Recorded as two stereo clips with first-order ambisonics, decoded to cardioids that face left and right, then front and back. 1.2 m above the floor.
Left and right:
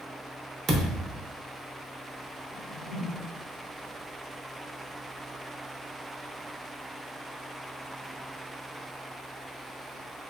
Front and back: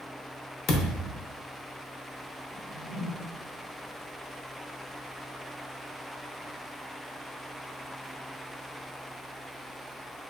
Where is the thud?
30° right, 0.6 m.